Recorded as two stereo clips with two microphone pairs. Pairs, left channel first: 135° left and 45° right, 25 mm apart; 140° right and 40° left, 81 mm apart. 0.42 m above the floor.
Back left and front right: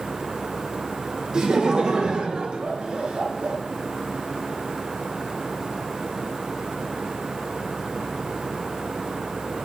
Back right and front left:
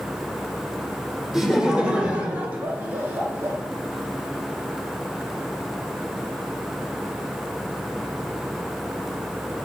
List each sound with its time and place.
1.3 s laughter: 40° right, 1.6 m; by 3.6 s 15° right, 3 m